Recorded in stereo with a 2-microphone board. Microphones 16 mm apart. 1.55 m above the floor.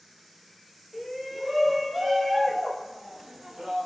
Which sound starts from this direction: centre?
A shout, at 0.9 s.